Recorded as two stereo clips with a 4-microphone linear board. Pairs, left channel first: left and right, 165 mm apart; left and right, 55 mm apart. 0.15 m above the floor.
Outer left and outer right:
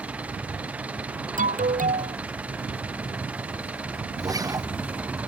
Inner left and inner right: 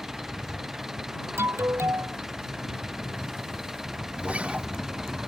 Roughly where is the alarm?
Right.